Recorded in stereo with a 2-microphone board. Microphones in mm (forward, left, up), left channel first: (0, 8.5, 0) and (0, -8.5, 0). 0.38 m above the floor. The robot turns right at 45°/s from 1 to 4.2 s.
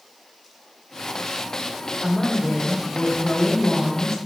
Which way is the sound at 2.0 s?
Centre (ahead or behind).